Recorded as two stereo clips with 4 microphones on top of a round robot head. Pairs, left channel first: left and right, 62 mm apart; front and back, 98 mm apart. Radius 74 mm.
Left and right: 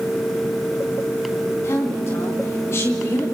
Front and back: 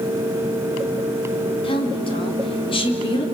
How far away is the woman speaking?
About 4.5 m.